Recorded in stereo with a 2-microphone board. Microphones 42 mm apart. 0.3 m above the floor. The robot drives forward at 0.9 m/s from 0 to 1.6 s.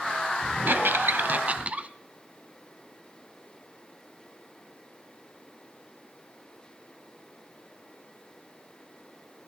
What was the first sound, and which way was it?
A squeak, 55° right (ahead or behind).